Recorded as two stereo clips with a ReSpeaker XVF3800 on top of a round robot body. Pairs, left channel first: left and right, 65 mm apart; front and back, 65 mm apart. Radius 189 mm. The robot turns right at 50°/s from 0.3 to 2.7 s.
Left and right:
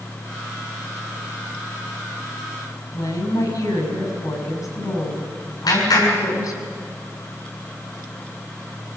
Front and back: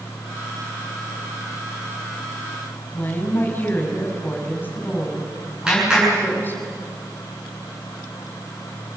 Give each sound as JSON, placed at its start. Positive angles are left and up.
{"t": 2.9, "sound": "a woman speaking", "azimuth_deg": 60, "distance_m": 6.5}
{"t": 5.7, "sound": "a clap", "azimuth_deg": 105, "distance_m": 7.5}